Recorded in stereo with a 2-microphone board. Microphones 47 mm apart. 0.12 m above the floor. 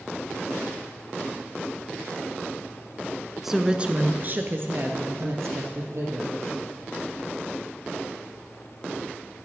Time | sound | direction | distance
3.4 | a woman speaking | 5° right (ahead or behind) | 1.1 m